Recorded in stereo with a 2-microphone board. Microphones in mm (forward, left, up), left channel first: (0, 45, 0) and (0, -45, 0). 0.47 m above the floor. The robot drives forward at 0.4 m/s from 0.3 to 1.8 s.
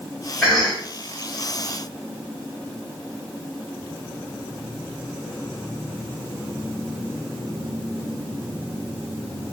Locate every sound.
0.4 s a cough: 10° left (ahead or behind), 1.3 m